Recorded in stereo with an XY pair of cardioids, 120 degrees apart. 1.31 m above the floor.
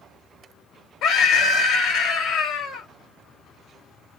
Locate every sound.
1.0 s a scream: 70° left, 1.1 m